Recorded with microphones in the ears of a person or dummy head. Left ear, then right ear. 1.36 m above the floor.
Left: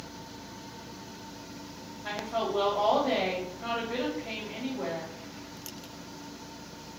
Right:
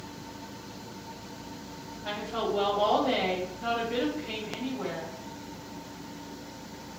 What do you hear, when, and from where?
2.0 s a woman speaking: 35° left (ahead or behind), 1.7 m